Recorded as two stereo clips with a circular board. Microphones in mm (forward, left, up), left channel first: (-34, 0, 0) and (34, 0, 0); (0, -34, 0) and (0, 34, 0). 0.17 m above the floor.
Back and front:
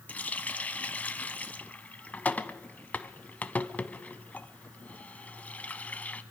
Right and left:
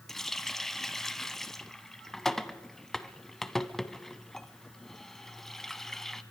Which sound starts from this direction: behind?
A running tap, at 0.1 s.